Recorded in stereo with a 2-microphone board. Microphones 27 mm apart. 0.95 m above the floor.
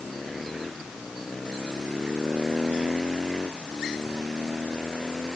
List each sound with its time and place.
Only background noise.